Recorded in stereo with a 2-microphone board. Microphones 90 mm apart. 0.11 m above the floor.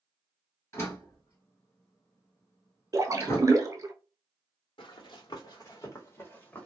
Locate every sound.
0.7 s a door slam: 30° left (ahead or behind), 1.6 m
2.9 s a splash: 40° right (ahead or behind), 0.6 m
4.8 s running footsteps: 70° left (ahead or behind), 1.1 m; by 6.7 s 15° left (ahead or behind), 1.0 m